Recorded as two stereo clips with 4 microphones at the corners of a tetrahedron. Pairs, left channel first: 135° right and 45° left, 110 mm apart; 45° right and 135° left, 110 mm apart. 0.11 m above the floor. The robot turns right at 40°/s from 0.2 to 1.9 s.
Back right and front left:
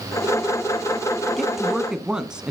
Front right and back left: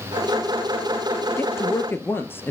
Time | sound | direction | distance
1.4 | a woman speaking | 50° right | 1.1 m